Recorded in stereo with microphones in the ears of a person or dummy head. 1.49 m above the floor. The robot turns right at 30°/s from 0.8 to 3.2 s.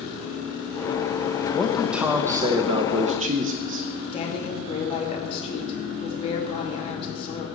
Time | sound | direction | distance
1.5 | a man speaking | straight behind | 0.8 m
4.1 | a woman speaking | 45° left (ahead or behind) | 2.5 m